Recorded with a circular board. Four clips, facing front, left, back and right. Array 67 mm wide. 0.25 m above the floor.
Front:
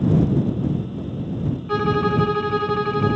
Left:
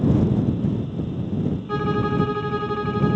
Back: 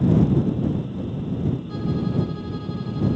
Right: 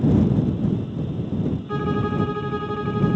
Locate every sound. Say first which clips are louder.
1.7 s a violin: left 3 dB, front 6 dB; 10° left